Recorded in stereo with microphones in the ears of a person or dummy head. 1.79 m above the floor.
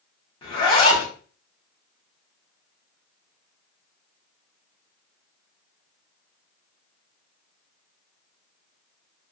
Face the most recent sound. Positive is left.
turn(degrees=25)  # may be behind; listen again after turning